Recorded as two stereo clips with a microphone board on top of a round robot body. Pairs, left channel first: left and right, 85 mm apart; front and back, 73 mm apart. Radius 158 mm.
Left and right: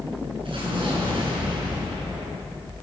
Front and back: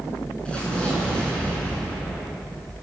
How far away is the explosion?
About 8.5 m.